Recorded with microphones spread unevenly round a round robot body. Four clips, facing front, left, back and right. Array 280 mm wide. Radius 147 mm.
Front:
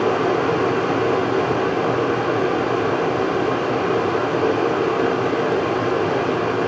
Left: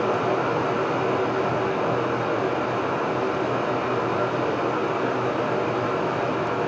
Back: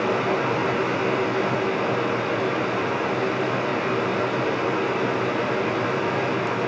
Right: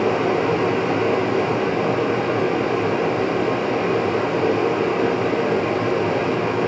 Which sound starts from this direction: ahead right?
Running water, at 0.0 s.